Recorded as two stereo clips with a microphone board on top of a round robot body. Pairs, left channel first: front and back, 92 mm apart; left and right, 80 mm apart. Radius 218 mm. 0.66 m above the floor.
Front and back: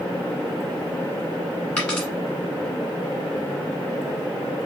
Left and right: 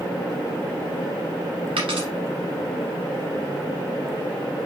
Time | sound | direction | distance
1.8 | a dropped coin | 85° right | 1.1 m